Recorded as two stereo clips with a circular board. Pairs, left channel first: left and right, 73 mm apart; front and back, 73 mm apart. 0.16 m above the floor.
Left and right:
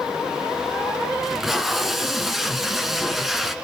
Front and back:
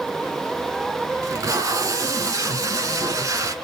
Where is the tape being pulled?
175° right, 0.9 m.